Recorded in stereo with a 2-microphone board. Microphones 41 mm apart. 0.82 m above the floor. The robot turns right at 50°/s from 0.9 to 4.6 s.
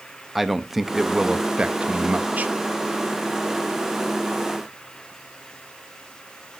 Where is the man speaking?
175° right, 0.8 m; by 2.5 s 95° right, 0.8 m.